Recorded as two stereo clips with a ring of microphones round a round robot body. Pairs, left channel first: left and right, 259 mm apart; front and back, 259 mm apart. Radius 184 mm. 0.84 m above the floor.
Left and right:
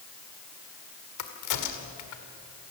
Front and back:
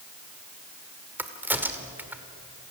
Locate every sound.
1.2 s a crack: 95° left, 2 m